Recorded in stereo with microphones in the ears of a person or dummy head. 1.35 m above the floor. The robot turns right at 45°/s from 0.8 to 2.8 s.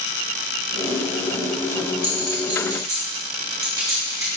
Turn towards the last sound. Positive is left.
turn(degrees=-15)  # may be behind; listen again after turning